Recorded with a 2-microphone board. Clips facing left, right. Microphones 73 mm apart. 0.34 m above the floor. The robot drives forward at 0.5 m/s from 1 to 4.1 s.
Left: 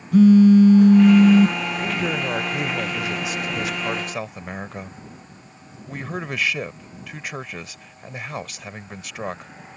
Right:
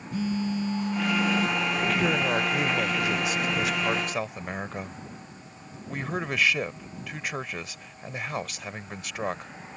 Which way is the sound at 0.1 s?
70° left (ahead or behind).